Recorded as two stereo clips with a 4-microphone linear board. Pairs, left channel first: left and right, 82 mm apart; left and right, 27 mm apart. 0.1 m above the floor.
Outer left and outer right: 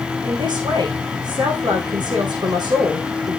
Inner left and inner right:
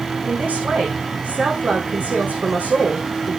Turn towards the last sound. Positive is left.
turn(degrees=-70)  # may be behind; listen again after turning